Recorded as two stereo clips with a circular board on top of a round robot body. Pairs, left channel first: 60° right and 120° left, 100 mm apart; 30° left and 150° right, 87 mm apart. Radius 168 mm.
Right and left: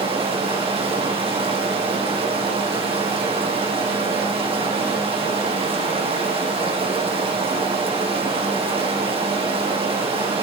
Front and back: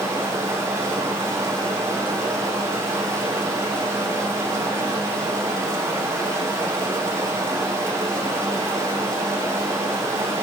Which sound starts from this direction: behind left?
Running water, at 0.0 s.